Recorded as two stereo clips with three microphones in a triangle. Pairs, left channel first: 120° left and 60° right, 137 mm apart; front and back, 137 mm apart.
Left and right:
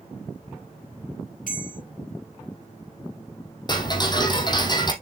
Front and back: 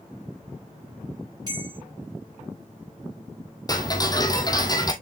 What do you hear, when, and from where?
1.5 s a bell: 120° left, 3.5 m
3.7 s ticking: 65° left, 1.5 m